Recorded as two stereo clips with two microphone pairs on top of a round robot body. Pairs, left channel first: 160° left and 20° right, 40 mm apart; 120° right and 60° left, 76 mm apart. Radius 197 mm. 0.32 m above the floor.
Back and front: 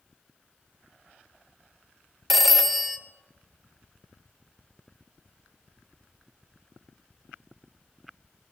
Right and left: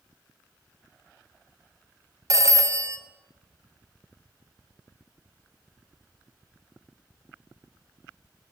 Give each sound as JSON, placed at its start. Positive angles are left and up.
{"t": 2.3, "sound": "a phone ringing", "azimuth_deg": 75, "distance_m": 0.9}